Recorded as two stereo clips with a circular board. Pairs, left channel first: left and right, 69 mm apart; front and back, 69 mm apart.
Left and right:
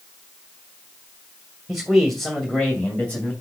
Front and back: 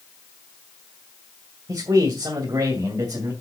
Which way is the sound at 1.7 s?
175° right.